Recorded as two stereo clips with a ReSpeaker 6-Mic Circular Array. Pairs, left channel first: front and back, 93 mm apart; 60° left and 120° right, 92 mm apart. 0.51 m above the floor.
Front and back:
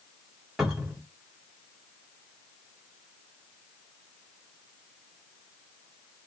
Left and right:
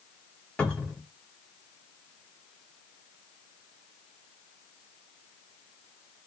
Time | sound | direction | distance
0.6 | a cupboard door | 110° left | 1.1 m